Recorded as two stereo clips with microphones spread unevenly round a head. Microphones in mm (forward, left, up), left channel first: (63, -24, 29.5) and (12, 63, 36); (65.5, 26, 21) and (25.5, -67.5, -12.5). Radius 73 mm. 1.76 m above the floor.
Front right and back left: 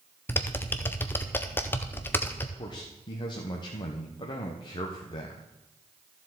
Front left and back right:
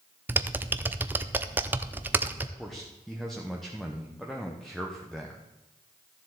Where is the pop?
No pop in this recording.